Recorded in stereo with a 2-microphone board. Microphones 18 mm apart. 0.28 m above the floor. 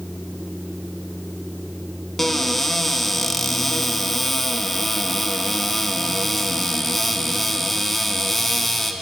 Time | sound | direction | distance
2.2 | a cupboard door | 10° left (ahead or behind) | 0.8 m